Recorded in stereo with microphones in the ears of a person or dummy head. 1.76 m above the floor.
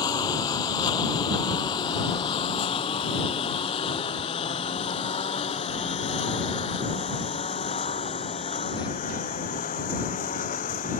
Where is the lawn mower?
15° left (ahead or behind); by 11.0 s 35° left (ahead or behind).